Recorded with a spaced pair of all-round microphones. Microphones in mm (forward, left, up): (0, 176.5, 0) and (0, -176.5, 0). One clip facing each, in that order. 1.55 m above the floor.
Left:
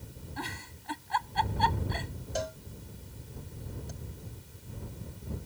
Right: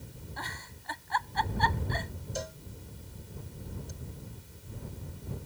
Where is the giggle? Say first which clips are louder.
Left 5 dB; 40° left (ahead or behind).